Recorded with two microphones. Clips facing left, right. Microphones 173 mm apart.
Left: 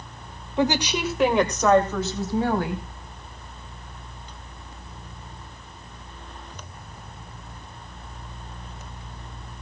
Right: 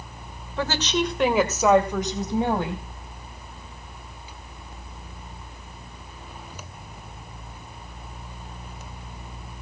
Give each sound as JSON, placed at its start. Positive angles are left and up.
{"t": 0.6, "sound": "a woman speaking", "side_deg": 20, "distance_m": 1.5}